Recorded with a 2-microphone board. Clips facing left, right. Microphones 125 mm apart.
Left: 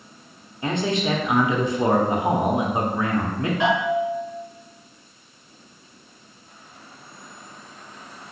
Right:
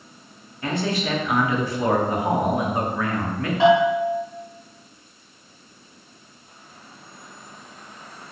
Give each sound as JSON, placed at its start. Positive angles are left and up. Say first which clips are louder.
{"t": 0.6, "sound": "a man speaking", "louder": "left 2 dB", "side_deg": 20, "distance_m": 0.6}
{"t": 3.6, "sound": "a bell", "louder": "right 6 dB", "side_deg": -30, "distance_m": 1.9}